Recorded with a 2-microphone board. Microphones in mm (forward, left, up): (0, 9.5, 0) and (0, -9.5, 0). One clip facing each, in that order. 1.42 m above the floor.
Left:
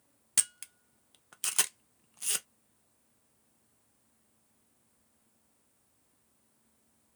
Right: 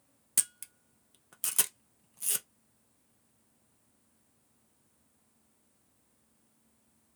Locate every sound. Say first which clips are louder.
0.4 s a camera shutter: left 2 dB; 20° left (ahead or behind), 0.6 m